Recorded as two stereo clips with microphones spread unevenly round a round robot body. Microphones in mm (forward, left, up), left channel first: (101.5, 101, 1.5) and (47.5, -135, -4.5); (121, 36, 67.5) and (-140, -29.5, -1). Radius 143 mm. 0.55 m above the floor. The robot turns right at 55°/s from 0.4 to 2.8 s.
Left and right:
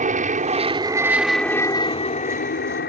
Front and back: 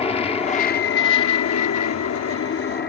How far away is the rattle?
No rattle in this recording.